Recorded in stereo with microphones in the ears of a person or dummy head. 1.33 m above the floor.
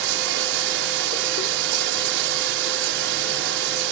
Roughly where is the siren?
I don't hear a siren.